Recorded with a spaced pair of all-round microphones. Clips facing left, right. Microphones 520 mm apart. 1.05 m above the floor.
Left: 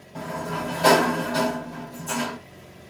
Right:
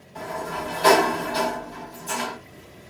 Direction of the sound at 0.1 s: 65° left (ahead or behind).